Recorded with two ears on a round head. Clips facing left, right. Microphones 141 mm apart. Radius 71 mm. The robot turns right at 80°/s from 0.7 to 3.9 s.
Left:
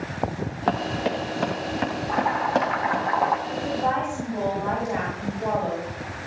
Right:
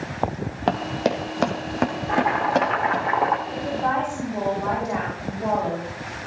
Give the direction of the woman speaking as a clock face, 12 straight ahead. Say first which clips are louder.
Even; 7 o'clock.